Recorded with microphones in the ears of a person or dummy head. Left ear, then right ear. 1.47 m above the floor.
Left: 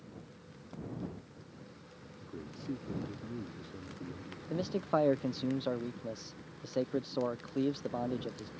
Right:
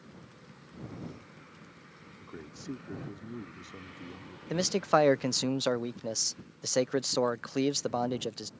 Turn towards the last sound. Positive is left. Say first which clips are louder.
# right 7 dB
turn(degrees=-60)  # may be behind; listen again after turning